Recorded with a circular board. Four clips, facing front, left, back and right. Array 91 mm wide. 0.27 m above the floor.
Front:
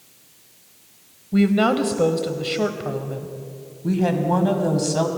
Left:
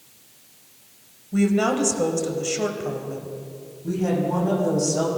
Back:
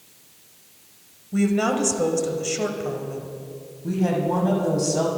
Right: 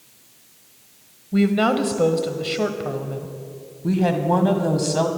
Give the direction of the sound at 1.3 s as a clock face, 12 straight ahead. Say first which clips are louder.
Right 2 dB, front 3 dB; 1 o'clock.